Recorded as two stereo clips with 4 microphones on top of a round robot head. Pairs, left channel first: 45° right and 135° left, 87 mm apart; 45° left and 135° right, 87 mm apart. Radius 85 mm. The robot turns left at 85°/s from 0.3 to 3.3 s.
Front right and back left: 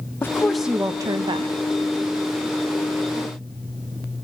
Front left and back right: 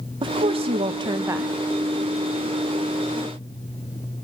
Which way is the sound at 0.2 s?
110° right.